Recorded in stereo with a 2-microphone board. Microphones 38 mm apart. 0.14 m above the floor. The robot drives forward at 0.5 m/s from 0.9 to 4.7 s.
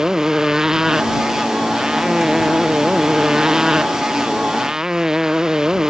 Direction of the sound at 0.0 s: 15° right (ahead or behind).